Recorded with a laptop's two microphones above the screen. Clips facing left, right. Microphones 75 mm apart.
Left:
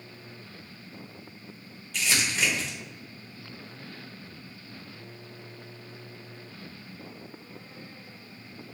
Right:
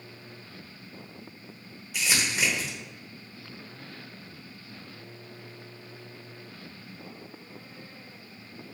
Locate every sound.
1.9 s crumpling: 10° right (ahead or behind), 1.2 m